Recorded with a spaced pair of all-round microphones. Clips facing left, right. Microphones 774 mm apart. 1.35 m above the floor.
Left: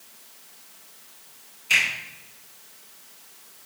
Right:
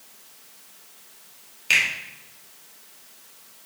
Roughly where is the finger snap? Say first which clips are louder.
Right 1 dB; right.